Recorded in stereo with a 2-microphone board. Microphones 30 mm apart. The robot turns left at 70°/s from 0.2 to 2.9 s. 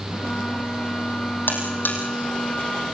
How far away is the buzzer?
About 5 m.